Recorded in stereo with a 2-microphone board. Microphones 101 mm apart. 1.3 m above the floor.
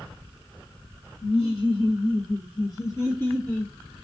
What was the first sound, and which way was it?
Laughter, 70° left (ahead or behind).